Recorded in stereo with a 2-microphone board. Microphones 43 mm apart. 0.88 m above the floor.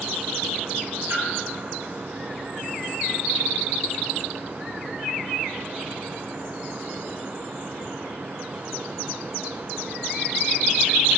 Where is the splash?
85° right, 5.5 m.